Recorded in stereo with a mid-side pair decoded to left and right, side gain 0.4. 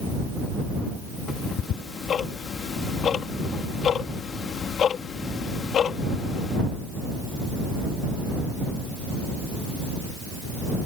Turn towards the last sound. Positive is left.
turn(degrees=65)